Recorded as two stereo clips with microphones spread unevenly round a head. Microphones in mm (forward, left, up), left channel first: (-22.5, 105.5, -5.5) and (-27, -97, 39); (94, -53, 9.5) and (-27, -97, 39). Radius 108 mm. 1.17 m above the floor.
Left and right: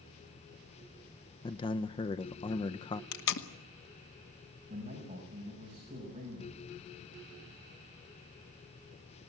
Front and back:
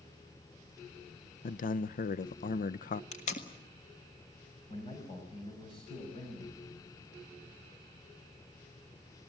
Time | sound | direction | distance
1.4 | a man speaking | 20° left | 0.6 m
3.1 | tape being pulled | 65° left | 1.6 m
4.7 | a man speaking | 30° right | 6.5 m